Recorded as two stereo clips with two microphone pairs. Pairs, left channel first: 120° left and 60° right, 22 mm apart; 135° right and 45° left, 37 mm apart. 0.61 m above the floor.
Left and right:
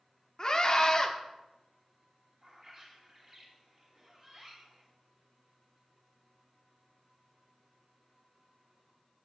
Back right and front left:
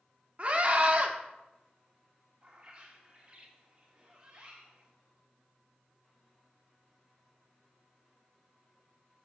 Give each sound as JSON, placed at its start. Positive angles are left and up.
{"t": 0.4, "sound": "a scream", "azimuth_deg": 85, "distance_m": 0.9}
{"t": 2.4, "sound": "a bird", "azimuth_deg": -10, "distance_m": 1.7}